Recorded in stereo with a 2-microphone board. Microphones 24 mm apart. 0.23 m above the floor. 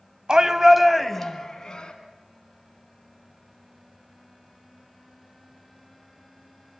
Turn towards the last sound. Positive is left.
turn(degrees=30)  # may be behind; listen again after turning